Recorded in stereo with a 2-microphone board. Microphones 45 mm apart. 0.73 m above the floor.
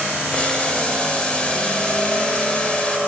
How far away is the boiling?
About 3 m.